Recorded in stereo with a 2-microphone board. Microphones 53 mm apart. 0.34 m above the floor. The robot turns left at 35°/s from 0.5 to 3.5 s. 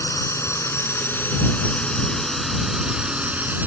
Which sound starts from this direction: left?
A drone, at 0.0 s.